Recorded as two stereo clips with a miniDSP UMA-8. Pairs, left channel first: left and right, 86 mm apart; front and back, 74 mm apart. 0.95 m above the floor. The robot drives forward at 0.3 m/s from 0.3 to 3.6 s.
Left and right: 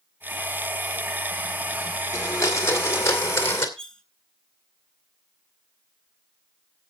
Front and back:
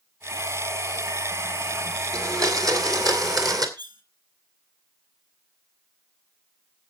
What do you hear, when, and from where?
2.1 s a blender: 140° left, 2 m; by 3.7 s 150° left, 2.5 m
3.8 s cutlery clinking: 170° left, 1.5 m